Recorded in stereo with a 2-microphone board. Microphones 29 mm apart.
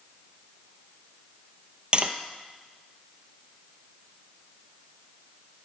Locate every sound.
1.9 s tapping: 35° right (ahead or behind), 0.7 m